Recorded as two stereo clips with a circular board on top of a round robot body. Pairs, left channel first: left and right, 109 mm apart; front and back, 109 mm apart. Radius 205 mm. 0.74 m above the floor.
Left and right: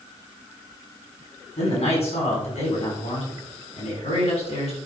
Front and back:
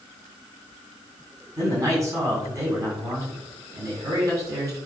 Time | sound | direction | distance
1.6 | a man speaking | 120° left | 6.5 m